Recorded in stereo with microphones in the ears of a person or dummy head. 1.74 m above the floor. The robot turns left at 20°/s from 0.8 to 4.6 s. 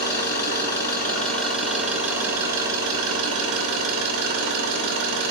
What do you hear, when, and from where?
0.0 s an engine running: 20° left, 1.1 m; by 5.3 s 60° right, 1.1 m